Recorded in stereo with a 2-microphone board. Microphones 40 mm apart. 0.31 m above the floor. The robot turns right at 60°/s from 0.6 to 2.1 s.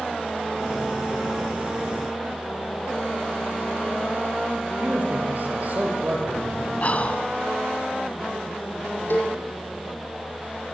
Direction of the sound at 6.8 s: 35° left (ahead or behind).